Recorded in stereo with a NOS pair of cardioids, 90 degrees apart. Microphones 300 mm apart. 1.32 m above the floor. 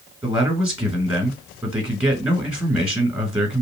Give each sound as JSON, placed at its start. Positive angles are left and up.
{"t": 0.2, "sound": "a man speaking", "azimuth_deg": -5, "distance_m": 1.7}